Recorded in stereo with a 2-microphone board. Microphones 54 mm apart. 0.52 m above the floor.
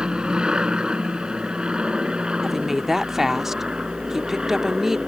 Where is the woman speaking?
10° right (ahead or behind).